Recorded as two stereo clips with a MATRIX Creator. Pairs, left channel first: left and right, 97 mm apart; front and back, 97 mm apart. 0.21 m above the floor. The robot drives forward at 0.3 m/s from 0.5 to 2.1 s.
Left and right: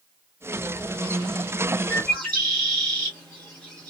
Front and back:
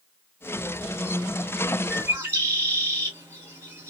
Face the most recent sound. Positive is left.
turn(degrees=155)